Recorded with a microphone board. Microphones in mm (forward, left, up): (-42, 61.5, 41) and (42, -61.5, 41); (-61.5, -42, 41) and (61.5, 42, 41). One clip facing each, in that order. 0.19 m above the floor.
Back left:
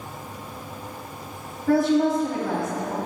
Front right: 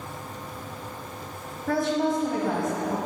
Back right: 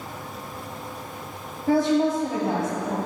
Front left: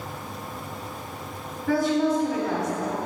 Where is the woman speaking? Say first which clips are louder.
Back left 5 dB, back right 2 dB; 145° right, 1.4 m.